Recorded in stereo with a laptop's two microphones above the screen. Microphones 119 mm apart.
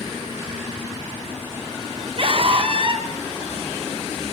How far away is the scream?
About 3 m.